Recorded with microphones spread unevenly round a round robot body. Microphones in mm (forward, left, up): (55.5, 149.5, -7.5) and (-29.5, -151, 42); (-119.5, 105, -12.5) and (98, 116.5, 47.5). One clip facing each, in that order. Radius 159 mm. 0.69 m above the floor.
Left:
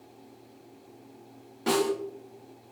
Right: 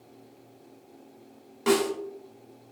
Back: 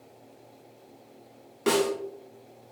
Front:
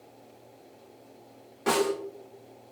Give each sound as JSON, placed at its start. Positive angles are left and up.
{"t": 1.7, "sound": "a snare drum", "azimuth_deg": -175, "distance_m": 1.4}